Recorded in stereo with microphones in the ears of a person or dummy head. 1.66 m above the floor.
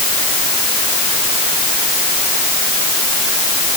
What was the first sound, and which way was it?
Only background noise.